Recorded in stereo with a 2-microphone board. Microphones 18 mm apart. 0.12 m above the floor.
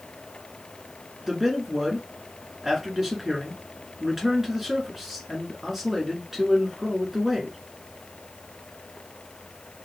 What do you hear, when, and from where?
1.2 s a man speaking: 15° right (ahead or behind), 1.3 m